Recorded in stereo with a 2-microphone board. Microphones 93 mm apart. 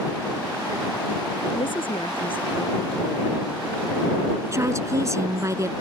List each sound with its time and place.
1.6 s a woman speaking: 65° left (ahead or behind); by 5.5 s 85° left
4.5 s a woman speaking: 35° right (ahead or behind)